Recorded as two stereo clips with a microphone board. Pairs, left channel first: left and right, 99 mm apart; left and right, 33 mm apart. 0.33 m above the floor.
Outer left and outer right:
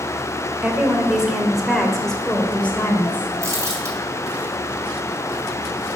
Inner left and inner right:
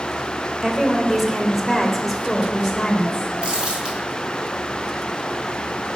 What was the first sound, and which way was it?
A woman speaking, 15° right (ahead or behind).